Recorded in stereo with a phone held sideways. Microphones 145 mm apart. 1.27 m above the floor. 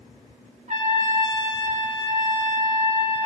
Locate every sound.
0.7 s a trumpet: 60° right (ahead or behind), 2 m